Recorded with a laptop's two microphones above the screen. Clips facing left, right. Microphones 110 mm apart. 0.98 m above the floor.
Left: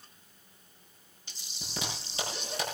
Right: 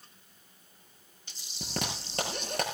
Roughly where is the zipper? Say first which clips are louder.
Right 3 dB; right.